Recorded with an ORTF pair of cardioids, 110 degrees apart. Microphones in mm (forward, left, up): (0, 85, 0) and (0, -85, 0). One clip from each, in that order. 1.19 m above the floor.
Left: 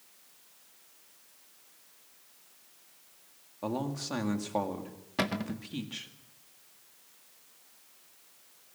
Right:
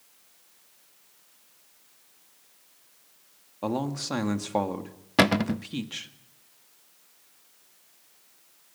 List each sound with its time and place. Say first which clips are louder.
3.6 s a man speaking: right 5 dB; 30° right, 2 m
5.2 s a cupboard door: right 10 dB; 45° right, 0.5 m